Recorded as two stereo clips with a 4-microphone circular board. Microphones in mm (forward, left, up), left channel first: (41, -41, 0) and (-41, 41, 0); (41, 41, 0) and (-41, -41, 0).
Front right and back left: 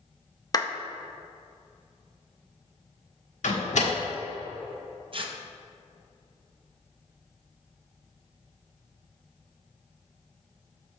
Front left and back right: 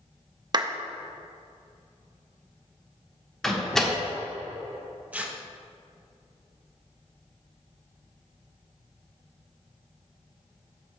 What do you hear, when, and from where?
0.5 s a clap: 95° right, 0.6 m
3.4 s a door slam: 40° right, 1.5 m
5.1 s tearing paper: 155° left, 0.8 m